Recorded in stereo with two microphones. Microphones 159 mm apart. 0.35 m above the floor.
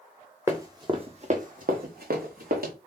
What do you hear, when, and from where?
0.5 s running footsteps: 15° right (ahead or behind), 0.8 m; by 2.7 s 70° right (ahead or behind), 1.2 m